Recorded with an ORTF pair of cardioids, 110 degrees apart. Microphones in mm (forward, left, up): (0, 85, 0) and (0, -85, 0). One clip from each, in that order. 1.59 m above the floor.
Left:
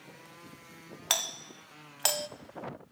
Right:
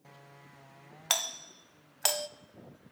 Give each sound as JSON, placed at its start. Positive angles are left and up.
{"t": 1.1, "sound": "a doorbell", "azimuth_deg": 0, "distance_m": 0.7}